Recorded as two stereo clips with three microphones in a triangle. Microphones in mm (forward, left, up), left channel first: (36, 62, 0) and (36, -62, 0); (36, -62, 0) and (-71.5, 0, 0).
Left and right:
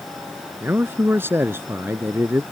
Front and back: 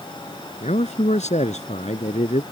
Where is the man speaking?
20° right.